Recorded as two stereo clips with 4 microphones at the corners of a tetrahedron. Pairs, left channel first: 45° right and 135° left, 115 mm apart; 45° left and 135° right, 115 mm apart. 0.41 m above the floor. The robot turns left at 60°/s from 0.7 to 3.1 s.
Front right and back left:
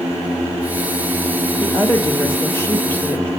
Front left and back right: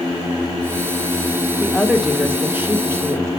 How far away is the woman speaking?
About 1.4 m.